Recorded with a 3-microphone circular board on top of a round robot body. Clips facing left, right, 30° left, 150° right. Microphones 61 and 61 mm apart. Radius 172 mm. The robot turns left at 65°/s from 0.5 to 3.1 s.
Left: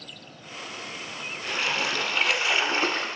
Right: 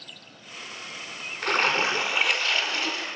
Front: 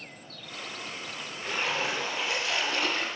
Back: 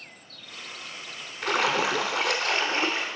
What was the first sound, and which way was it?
A splash, 130° right.